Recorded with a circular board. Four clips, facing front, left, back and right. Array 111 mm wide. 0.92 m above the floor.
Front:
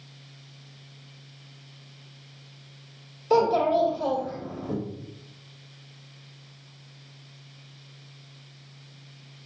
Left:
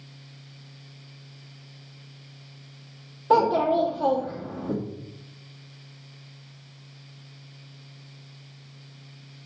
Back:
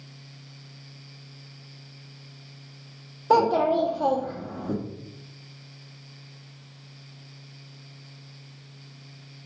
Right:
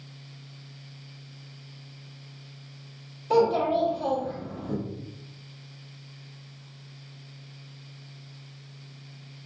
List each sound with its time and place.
3.3 s a child speaking: 145° left, 0.9 m